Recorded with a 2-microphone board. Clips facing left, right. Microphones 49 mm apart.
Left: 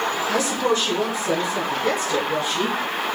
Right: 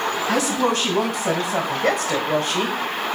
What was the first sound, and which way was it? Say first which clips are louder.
A woman speaking: right 2 dB; 75° right (ahead or behind).